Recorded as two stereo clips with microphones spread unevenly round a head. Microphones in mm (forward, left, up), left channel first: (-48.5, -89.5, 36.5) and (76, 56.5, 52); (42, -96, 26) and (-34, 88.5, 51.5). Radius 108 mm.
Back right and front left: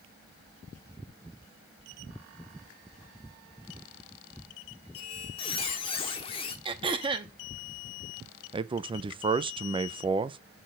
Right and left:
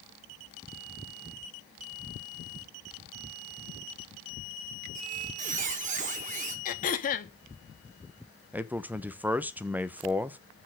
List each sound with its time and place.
5.0 s a squeak: 165° left, 0.9 m
6.7 s throat clearing: 15° right, 0.7 m
8.5 s a man speaking: 25° left, 0.5 m